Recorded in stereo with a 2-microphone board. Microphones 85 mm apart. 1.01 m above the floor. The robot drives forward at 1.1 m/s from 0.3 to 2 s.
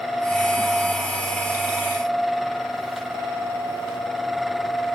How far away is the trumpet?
I don't hear a trumpet.